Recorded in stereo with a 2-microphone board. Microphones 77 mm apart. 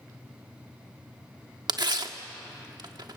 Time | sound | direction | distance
1.7 | tearing paper | 65° right (ahead or behind) | 1.4 m